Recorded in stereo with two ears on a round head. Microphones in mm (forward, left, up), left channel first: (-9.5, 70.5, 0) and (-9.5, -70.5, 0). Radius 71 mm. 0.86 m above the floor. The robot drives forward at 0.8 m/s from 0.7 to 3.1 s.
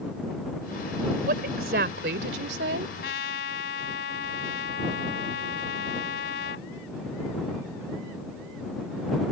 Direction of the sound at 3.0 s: 80° left.